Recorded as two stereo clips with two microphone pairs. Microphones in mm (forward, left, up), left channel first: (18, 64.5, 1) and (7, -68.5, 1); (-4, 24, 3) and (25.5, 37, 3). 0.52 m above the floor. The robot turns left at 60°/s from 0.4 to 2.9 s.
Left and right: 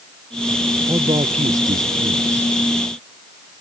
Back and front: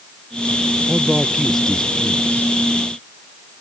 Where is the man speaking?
35° right; by 2.5 s 130° right.